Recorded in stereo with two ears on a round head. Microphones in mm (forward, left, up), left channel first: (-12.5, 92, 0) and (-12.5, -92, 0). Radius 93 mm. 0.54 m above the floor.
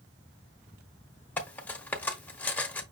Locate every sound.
1.4 s cutlery clinking: 10° left (ahead or behind), 0.9 m